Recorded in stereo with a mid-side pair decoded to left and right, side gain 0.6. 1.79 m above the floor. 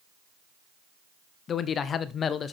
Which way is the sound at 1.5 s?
40° left.